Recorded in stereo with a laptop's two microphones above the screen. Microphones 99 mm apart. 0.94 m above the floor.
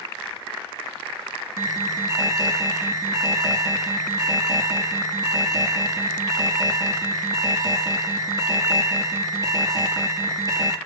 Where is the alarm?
35° right (ahead or behind), 1.9 m.